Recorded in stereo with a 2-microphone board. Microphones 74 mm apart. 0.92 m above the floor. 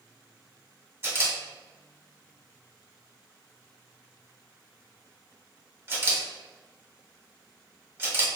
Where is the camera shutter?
35° right (ahead or behind), 1.5 m.